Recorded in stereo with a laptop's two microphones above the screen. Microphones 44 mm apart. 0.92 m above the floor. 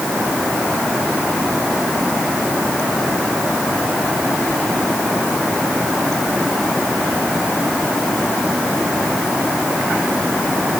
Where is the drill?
No drill in this recording.